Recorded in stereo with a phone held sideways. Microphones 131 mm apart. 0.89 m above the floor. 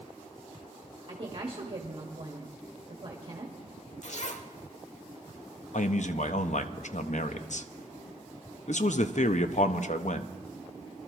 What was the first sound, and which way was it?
A woman speaking, 40° right (ahead or behind).